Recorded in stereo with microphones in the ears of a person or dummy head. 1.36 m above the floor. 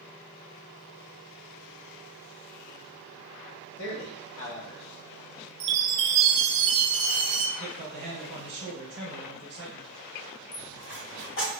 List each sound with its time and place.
3.8 s a man speaking: 65° left (ahead or behind), 1.1 m
5.6 s a chime: 30° right (ahead or behind), 0.5 m
7.6 s a man speaking: 45° right (ahead or behind), 1.1 m
10.5 s a dropped coin: 65° left (ahead or behind), 1.8 m